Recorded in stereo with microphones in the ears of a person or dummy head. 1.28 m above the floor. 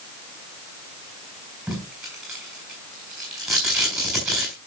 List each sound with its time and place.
1.7 s tape being pulled: 5° right (ahead or behind), 6 m